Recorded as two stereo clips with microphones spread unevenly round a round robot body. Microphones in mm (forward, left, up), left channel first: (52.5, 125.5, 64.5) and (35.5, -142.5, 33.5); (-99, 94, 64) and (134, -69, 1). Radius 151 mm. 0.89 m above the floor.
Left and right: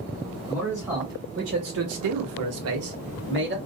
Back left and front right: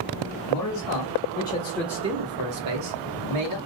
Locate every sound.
0.5 s a man speaking: straight behind, 1.4 m; by 3.6 s 45° right, 1.6 m